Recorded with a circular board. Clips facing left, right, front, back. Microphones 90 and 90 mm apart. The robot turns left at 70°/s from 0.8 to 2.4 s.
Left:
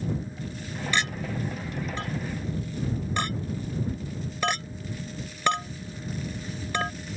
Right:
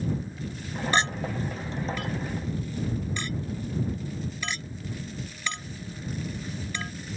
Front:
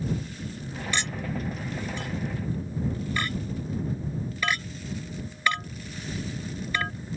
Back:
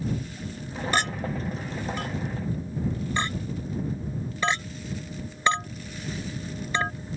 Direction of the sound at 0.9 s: 140° right.